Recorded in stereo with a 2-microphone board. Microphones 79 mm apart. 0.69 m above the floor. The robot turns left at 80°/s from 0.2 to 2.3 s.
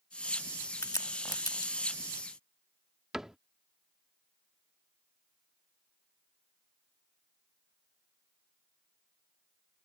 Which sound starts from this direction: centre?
A cupboard door, at 3.1 s.